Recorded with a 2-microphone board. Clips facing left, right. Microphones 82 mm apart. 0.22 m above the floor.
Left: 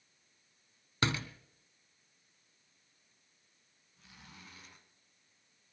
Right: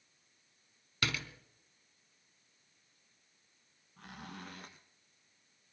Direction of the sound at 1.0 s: 35° left (ahead or behind).